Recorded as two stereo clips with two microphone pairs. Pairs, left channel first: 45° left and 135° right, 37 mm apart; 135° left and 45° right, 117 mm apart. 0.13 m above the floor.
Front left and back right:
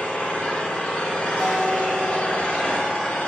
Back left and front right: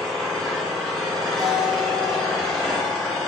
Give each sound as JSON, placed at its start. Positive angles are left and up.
{"t": 0.0, "sound": "an engine running", "azimuth_deg": 55, "distance_m": 1.4}
{"t": 1.4, "sound": "a guitar", "azimuth_deg": -40, "distance_m": 1.2}